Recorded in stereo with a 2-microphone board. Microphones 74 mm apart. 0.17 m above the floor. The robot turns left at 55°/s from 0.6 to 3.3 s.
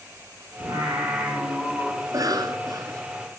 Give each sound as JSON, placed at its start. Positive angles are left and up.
{"t": 0.6, "sound": "singing", "azimuth_deg": -120, "distance_m": 9.5}
{"t": 2.0, "sound": "a cough", "azimuth_deg": -65, "distance_m": 2.5}